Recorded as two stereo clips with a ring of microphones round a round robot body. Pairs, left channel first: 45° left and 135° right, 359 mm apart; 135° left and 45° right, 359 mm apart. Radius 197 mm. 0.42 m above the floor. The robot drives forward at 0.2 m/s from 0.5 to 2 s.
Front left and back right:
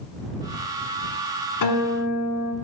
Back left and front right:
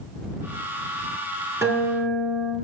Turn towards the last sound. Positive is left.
turn(degrees=40)